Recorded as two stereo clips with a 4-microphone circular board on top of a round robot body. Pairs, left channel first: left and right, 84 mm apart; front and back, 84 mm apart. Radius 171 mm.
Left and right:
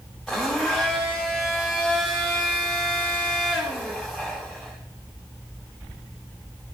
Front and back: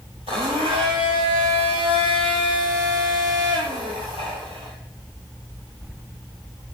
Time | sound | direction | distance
0.3 | a blender | 175° left | 0.8 m